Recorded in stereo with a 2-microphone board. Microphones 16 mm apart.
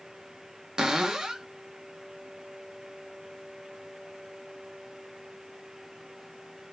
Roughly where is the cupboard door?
Right.